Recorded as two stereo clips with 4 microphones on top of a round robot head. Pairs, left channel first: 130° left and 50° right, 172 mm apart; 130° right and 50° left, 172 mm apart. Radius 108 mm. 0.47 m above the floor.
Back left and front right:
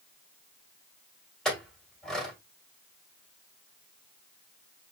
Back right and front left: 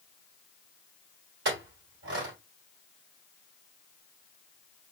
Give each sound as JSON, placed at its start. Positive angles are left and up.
{"t": 1.4, "sound": "a clink", "azimuth_deg": 45, "distance_m": 1.7}